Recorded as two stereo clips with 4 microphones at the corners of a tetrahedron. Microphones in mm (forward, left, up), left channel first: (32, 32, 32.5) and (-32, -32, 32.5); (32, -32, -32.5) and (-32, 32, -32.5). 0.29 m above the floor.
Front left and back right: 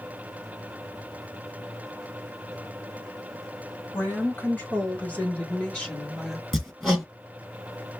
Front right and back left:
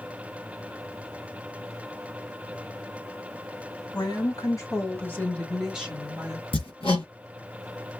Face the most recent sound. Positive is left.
turn(degrees=-45)